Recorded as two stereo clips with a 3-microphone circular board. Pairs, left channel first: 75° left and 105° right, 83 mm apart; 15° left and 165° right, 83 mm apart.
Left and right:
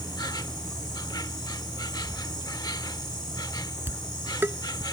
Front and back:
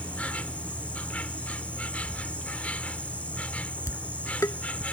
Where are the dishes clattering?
40° right.